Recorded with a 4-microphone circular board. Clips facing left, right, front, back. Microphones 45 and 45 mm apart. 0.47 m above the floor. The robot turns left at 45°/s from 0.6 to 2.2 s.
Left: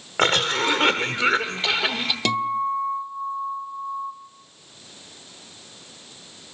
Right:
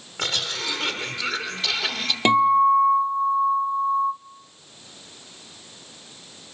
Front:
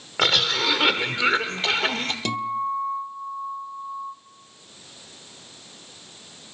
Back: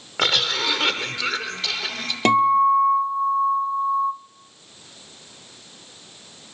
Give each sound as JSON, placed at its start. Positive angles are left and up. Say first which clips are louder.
{"t": 0.2, "sound": "a cough", "louder": "left 8 dB, even", "azimuth_deg": 85, "distance_m": 1.4}
{"t": 2.2, "sound": "a guitar", "louder": "right 9 dB, back 13 dB", "azimuth_deg": -150, "distance_m": 1.0}